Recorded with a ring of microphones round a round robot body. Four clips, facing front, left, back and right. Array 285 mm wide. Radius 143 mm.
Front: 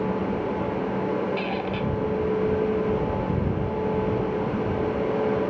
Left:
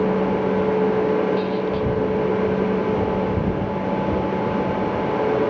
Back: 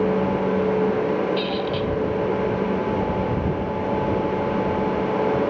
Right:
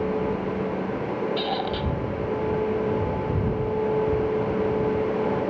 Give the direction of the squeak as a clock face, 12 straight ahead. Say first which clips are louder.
Left 5 dB, back 4 dB; 3 o'clock.